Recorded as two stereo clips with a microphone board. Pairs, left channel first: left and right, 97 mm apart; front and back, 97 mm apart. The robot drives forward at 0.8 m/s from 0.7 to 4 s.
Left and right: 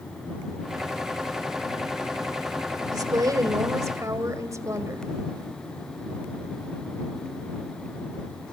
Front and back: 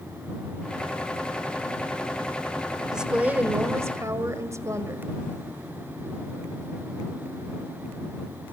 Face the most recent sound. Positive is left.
turn(degrees=-135)